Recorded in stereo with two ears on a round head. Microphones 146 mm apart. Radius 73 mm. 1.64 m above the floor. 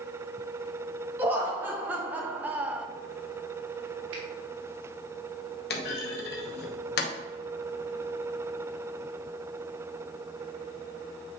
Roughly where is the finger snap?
Right.